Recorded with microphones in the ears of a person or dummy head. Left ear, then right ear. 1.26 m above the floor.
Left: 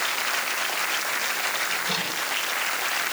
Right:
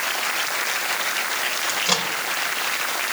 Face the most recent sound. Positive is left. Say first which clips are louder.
# right 4 dB
turn(degrees=-50)  # may be behind; listen again after turning